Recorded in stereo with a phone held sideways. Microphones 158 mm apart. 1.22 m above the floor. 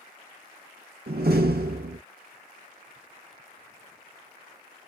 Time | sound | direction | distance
1.1 | a door slam | 80° right | 0.8 m